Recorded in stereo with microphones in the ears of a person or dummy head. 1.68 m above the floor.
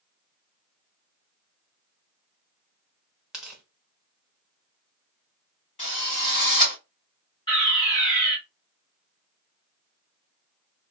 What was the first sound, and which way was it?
Tearing paper, 5° right (ahead or behind).